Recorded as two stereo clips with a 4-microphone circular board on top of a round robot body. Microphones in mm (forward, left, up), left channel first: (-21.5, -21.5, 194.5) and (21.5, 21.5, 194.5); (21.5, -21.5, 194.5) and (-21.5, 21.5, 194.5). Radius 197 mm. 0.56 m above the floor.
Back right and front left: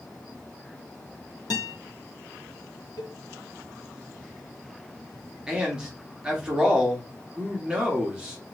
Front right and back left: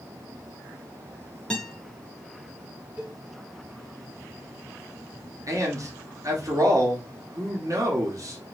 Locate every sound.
1.5 s a guitar: 120° right, 0.8 m
3.0 s a cowbell: 150° right, 2 m
5.5 s a man speaking: 120° left, 1.6 m